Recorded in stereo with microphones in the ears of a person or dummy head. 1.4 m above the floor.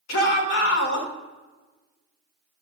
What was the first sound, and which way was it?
A shout, 70° left (ahead or behind).